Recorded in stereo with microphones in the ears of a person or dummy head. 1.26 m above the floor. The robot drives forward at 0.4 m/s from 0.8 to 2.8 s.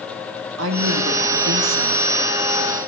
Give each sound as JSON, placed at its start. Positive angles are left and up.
{"t": 0.6, "sound": "a woman speaking", "side_deg": -70, "distance_m": 2.0}